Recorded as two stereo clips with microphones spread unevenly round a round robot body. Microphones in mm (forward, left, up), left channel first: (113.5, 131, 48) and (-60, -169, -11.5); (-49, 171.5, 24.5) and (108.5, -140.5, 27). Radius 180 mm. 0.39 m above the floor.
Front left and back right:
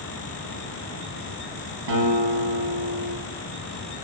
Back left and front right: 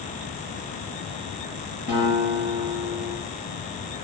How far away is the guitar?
About 4 m.